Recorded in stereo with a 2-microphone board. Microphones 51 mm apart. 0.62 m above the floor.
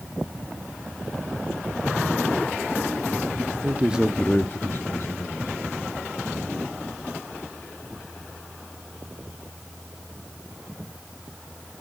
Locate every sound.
3.6 s a man speaking: 40° right (ahead or behind), 1.1 m; by 6.7 s 75° left (ahead or behind), 4 m